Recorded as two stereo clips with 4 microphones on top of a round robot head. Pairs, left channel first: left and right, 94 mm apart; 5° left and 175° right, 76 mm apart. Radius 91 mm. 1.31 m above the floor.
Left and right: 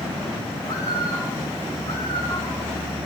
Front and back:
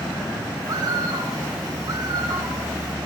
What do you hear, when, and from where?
0.6 s a bird: 155° left, 2.0 m